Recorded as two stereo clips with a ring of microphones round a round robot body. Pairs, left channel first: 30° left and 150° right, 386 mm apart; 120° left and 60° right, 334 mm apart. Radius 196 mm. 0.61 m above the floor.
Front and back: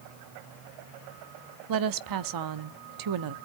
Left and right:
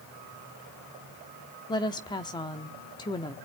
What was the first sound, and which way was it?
A woman speaking, 165° right.